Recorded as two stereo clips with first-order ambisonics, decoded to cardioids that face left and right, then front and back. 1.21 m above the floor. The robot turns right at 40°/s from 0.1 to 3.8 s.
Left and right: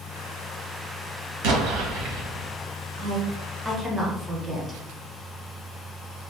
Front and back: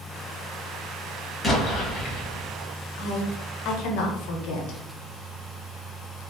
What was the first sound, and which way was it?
An explosion, 85° right.